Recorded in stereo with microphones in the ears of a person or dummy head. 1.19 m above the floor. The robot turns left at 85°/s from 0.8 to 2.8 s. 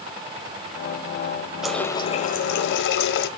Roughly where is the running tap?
Behind.